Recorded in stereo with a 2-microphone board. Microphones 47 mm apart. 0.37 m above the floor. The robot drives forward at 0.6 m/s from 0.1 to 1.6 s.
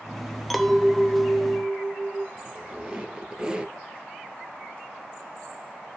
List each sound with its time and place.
0.5 s a clink: centre (ahead or behind), 0.8 m
2.4 s a squeak: 20° right (ahead or behind), 1.6 m